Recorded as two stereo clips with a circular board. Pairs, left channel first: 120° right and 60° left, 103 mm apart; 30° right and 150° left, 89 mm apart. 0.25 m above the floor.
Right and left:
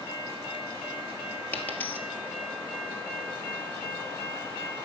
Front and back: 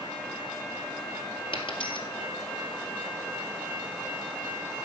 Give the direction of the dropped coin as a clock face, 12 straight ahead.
2 o'clock.